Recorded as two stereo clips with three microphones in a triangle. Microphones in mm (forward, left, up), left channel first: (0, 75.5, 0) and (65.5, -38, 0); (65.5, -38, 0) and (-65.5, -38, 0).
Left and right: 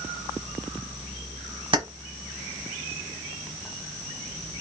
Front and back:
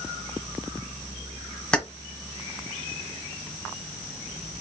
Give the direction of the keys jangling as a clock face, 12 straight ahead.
3 o'clock.